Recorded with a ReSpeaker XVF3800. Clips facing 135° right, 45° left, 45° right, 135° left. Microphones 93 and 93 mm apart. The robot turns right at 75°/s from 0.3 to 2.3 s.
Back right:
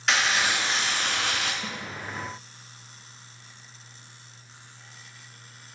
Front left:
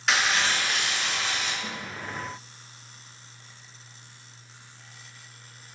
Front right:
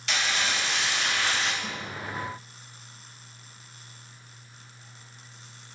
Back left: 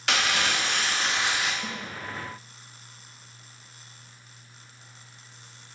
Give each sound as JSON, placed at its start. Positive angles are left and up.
{"t": 0.1, "sound": "crumpling", "azimuth_deg": 135, "distance_m": 0.5}
{"t": 1.6, "sound": "a snare drum", "azimuth_deg": 165, "distance_m": 1.5}